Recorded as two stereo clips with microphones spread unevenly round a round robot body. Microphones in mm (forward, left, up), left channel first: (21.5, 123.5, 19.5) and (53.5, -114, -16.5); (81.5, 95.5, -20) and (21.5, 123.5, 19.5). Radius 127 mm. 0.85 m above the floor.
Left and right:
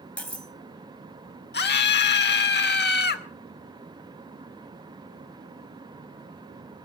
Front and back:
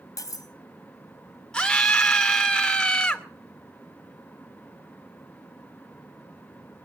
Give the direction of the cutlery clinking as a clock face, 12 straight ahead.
12 o'clock.